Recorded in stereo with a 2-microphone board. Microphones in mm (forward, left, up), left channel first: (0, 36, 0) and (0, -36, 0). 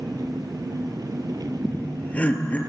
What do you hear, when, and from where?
0.0 s an engine running: 65° right (ahead or behind), 2.5 m
1.6 s laughter: 20° left (ahead or behind), 4 m